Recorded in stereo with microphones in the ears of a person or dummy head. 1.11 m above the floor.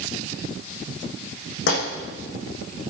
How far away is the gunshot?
About 8.5 m.